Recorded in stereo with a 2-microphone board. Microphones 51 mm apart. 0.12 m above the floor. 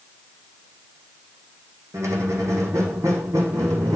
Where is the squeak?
80° right, 1.7 m.